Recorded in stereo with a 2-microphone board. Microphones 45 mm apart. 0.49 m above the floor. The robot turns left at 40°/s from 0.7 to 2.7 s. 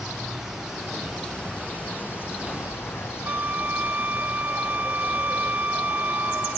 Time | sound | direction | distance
0.0 | an insect | 170° right | ?
3.2 | a flute | 40° right (ahead or behind) | ?